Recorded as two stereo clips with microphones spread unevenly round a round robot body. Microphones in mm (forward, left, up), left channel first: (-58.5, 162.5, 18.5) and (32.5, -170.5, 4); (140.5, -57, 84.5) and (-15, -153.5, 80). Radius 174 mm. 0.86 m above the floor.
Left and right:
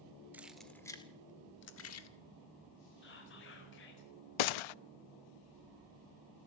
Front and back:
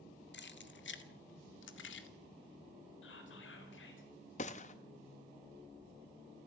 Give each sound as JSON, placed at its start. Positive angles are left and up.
{"t": 0.3, "sound": "keys jangling", "azimuth_deg": 10, "distance_m": 2.0}
{"t": 3.0, "sound": "whispering", "azimuth_deg": 45, "distance_m": 4.0}
{"t": 4.4, "sound": "a gunshot", "azimuth_deg": 95, "distance_m": 0.5}